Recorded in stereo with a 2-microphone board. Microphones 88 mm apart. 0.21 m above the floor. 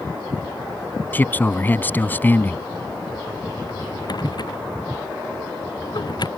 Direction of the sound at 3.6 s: 55° left (ahead or behind).